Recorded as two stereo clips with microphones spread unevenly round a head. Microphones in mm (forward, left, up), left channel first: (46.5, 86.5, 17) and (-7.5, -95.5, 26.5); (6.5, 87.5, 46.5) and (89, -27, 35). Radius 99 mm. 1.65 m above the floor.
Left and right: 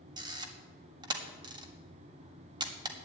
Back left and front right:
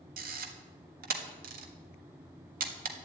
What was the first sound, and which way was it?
A camera shutter, 45° right.